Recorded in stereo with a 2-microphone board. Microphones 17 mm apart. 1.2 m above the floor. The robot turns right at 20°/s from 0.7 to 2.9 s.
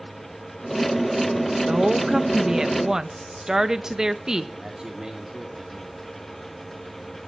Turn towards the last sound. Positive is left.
turn(degrees=-45)  # may be behind; listen again after turning